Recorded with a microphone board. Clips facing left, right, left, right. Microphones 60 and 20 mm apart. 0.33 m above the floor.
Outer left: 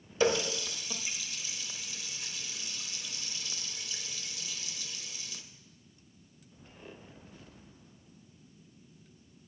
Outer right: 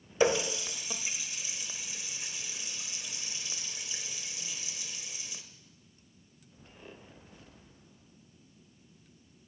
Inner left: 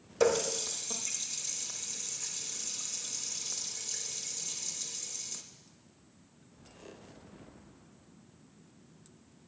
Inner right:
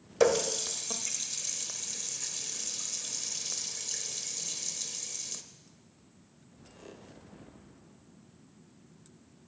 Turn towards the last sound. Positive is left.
turn(degrees=-20)  # may be behind; listen again after turning